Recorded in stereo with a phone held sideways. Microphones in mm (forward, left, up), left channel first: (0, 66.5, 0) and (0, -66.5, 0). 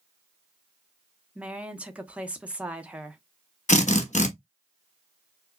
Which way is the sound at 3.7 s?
65° left (ahead or behind).